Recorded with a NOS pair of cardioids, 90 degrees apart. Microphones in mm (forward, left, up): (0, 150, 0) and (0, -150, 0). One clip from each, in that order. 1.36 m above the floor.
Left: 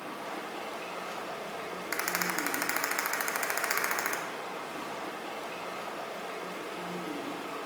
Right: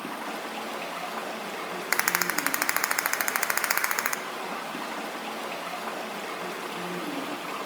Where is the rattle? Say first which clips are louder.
Right 6 dB; 45° right, 0.6 m.